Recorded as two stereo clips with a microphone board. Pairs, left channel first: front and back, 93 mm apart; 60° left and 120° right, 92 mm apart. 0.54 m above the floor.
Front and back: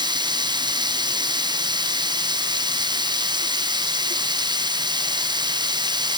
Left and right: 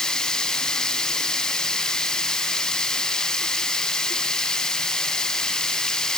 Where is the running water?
145° left.